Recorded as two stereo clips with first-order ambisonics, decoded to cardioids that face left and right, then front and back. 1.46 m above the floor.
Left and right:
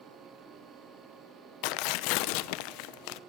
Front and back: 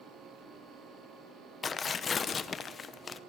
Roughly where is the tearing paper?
Left.